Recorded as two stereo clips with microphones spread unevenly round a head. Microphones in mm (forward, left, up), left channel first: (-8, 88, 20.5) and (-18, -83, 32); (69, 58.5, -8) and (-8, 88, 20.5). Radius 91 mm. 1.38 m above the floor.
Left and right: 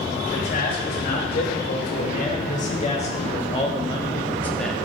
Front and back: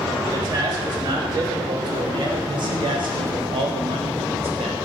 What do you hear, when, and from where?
0.3 s a man speaking: 120° left, 3.5 m; by 4.8 s 175° left, 1.1 m